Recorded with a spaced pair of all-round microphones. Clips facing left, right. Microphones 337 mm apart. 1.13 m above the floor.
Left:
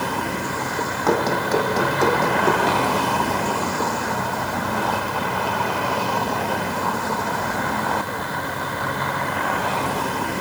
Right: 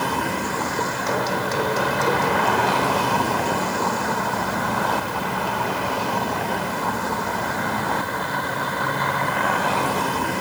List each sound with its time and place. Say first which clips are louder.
1.1 s running footsteps: left 7 dB; 65° left (ahead or behind), 3.5 m; by 2.8 s 75° left (ahead or behind), 4.5 m